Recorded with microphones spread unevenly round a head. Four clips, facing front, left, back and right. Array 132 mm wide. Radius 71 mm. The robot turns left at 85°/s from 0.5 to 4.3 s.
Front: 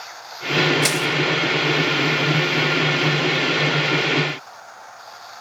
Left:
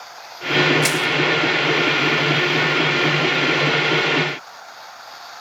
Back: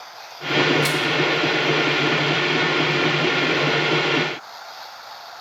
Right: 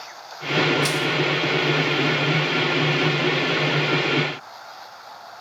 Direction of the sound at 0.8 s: 50° left.